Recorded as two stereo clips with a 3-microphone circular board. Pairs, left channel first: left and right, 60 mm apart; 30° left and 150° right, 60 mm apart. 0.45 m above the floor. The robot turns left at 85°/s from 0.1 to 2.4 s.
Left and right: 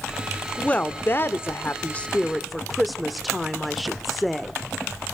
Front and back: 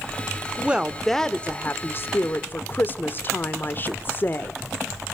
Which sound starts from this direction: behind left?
A woman speaking, at 0.6 s.